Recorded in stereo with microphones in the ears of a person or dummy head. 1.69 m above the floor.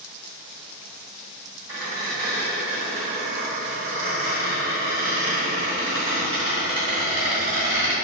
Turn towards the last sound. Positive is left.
turn(degrees=-5)  # may be behind; listen again after turning